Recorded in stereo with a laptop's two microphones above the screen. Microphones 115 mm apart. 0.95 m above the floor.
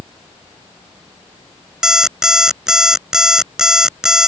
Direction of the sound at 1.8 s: 5° right (ahead or behind).